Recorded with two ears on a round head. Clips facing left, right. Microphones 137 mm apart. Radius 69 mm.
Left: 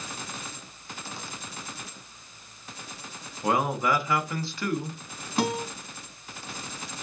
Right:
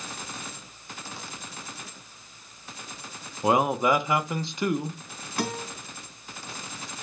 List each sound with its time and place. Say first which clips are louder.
3.4 s a man speaking: right 3 dB; 20° right (ahead or behind), 0.7 m
5.4 s a guitar: left 4 dB; 25° left (ahead or behind), 2 m